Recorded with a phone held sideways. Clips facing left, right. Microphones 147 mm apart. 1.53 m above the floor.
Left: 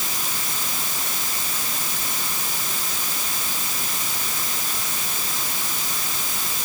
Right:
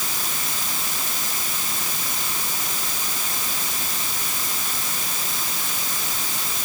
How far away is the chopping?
I don't hear chopping.